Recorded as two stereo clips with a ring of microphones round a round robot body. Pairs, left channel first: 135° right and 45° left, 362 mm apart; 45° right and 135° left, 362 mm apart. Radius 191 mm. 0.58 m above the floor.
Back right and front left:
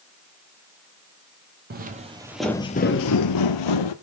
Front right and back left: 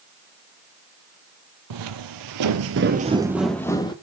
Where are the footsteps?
105° left, 1.0 m; by 3.9 s 120° right, 1.0 m.